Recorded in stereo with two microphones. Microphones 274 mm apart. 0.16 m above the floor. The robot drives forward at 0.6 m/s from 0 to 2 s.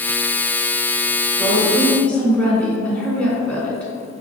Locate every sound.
1.4 s a woman speaking: 5° left (ahead or behind), 1.7 m